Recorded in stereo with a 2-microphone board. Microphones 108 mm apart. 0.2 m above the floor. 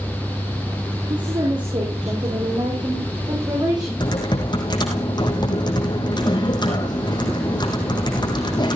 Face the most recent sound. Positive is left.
turn(degrees=40)  # may be behind; listen again after turning